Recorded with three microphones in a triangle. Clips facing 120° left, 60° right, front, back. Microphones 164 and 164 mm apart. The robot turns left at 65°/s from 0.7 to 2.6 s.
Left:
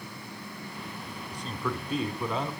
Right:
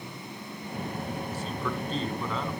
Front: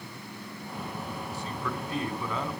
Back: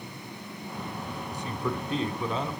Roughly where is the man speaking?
Behind right.